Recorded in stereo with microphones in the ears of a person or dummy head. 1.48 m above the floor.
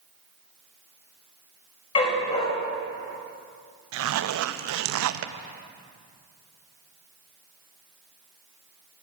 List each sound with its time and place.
1.9 s a dog barking: 35° left (ahead or behind), 3 m
3.9 s a zipper: 75° right (ahead or behind), 0.7 m